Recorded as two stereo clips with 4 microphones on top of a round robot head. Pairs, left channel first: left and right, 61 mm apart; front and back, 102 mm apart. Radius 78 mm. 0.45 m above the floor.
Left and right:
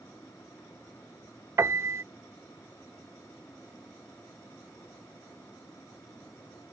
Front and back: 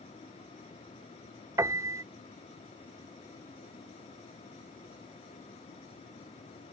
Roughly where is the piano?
Behind right.